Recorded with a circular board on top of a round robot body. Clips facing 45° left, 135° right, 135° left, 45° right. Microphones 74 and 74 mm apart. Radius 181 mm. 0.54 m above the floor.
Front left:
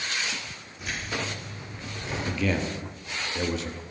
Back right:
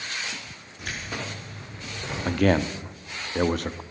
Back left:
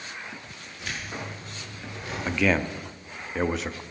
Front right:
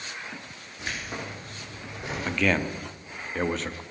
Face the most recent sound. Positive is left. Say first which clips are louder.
# back right 7 dB, back left 1 dB
turn(degrees=-140)